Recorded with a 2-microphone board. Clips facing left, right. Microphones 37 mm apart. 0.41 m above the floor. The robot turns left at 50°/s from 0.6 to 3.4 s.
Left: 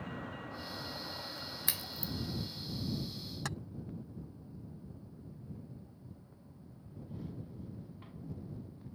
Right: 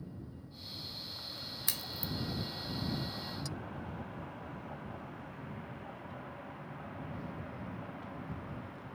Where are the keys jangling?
60° left (ahead or behind).